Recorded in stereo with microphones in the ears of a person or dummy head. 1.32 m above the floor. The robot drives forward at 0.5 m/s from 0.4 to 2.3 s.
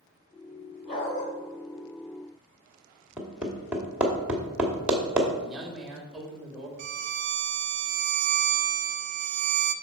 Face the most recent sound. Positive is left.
turn(degrees=-55)  # may be behind; listen again after turning